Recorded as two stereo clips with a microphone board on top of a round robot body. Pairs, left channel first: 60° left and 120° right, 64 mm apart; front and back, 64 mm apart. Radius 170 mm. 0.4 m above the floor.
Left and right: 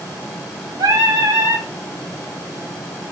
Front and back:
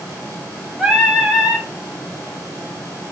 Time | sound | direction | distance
0.8 | singing | 100° right | 3 m